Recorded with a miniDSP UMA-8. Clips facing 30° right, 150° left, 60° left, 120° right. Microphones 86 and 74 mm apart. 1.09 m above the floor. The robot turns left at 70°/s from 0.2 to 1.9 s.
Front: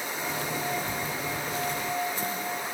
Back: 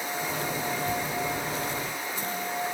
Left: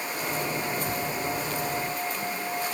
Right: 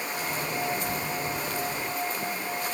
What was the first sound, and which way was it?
Only background noise.